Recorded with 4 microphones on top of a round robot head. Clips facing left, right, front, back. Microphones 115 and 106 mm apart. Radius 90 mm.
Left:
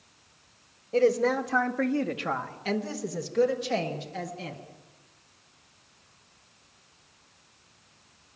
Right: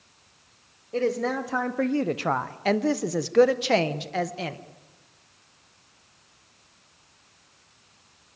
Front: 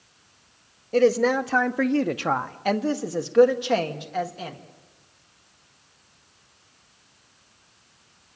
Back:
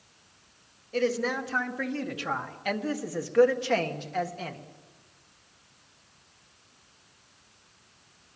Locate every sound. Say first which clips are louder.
0.9 s a woman speaking: left 3 dB, front 9 dB; 15° left, 1.0 m; by 4.6 s 90° right, 1.9 m